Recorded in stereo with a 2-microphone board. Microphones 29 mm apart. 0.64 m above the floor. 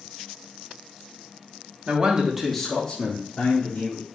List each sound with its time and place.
1.9 s a man speaking: 45° right (ahead or behind), 0.9 m; by 4.0 s 55° left (ahead or behind), 1.9 m